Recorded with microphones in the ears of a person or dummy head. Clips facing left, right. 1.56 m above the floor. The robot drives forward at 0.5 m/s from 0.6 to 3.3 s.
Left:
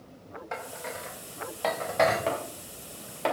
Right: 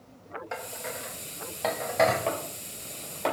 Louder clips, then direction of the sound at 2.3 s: Left 1 dB; centre (ahead or behind).